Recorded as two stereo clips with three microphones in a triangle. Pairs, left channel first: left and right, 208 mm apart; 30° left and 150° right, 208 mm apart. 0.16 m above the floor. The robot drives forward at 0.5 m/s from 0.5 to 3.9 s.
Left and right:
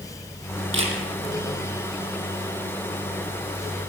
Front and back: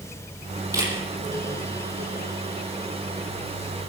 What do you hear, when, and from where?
0.7 s a camera shutter: 75° right, 6 m; by 1.0 s 80° right, 6 m